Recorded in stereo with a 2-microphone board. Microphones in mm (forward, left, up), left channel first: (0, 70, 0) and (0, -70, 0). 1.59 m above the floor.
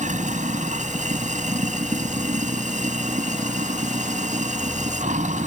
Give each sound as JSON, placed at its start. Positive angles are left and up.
{"t": 0.0, "sound": "running water", "side_deg": -65}